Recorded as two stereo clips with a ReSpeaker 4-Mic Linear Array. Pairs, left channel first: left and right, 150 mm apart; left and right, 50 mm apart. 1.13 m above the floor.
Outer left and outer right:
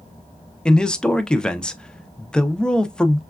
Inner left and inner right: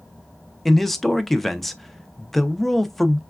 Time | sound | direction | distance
0.7 | a man speaking | 5° left (ahead or behind) | 0.5 m